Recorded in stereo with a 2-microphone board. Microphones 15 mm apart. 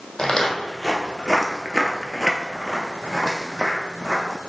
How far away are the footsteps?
About 1.2 m.